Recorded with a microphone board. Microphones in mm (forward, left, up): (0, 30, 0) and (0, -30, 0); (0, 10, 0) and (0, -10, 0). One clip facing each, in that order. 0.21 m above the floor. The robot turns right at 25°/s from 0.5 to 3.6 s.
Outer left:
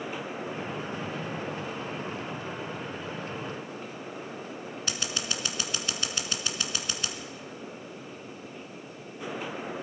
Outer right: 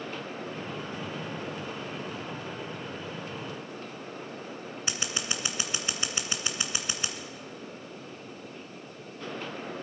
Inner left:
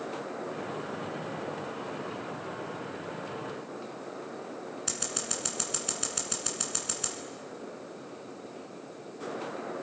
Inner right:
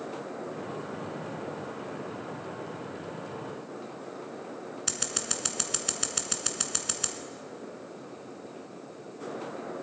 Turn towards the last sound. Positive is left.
turn(degrees=-20)  # may be behind; listen again after turning